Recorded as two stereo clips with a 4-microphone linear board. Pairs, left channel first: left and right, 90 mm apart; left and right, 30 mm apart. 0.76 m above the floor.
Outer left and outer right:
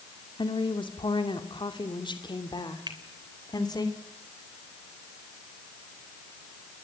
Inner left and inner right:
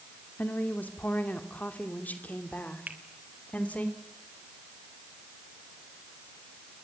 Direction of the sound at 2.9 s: 55° right (ahead or behind).